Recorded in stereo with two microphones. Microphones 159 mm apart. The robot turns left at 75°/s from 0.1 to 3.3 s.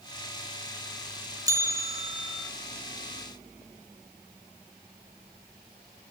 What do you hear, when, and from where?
1.5 s a bell: 20° right (ahead or behind), 0.9 m; by 2.5 s centre (ahead or behind), 0.9 m